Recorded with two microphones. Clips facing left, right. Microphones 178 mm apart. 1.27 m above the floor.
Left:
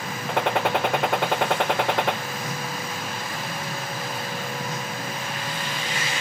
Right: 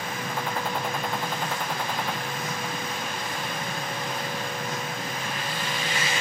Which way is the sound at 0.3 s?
75° left (ahead or behind).